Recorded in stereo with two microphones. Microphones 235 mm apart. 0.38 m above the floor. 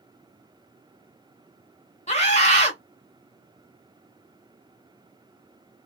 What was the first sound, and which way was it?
A scream, 30° left (ahead or behind).